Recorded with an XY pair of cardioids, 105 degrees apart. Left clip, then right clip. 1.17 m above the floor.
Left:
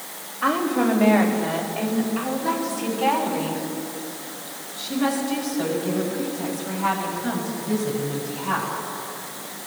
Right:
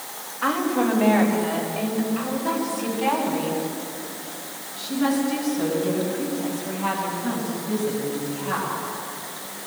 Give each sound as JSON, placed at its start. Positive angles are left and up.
{"t": 0.4, "sound": "a woman speaking", "azimuth_deg": -5, "distance_m": 5.0}